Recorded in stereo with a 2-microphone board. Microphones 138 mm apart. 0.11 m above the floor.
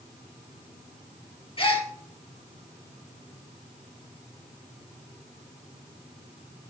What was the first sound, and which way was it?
A gasp, 40° left (ahead or behind).